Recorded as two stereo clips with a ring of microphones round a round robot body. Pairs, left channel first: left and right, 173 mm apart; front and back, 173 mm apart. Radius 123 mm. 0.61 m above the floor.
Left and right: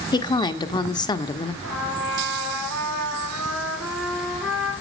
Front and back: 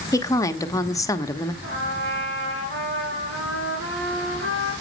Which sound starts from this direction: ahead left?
A woman speaking, at 0.1 s.